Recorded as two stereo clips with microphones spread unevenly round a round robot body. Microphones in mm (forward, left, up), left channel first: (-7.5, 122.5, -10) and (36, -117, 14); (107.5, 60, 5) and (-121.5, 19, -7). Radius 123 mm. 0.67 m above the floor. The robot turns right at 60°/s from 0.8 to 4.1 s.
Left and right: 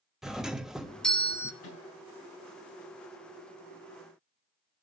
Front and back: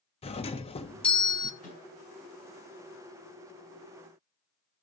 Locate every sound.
0.2 s a doorbell: 20° left, 1.0 m; by 1.5 s 65° left, 1.0 m
1.6 s a microwave: 65° left, 7.5 m; by 1.8 s 80° left, 7.5 m